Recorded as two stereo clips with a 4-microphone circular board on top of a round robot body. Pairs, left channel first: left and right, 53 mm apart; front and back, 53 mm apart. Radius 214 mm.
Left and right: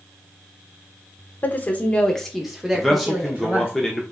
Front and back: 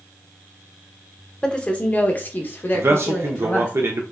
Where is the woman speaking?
65° left, 0.9 m; by 3.7 s 40° right, 1.2 m.